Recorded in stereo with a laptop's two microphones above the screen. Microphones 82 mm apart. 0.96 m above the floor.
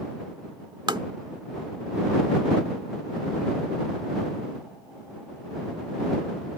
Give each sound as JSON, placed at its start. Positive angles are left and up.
{"t": 0.9, "sound": "tapping", "side_deg": -65}